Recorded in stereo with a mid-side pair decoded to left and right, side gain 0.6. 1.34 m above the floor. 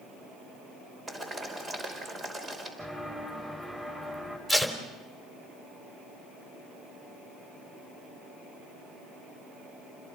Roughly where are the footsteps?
Ahead.